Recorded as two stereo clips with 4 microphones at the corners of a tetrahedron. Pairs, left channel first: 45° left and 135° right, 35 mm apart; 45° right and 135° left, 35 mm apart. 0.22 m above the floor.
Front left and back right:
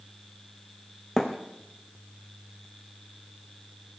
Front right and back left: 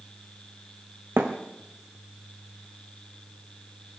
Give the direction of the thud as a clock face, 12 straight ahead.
8 o'clock.